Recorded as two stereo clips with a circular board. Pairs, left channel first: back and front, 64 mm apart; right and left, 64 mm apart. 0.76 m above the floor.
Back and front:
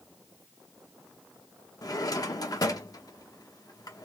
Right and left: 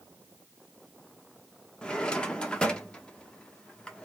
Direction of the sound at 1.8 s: 165° right.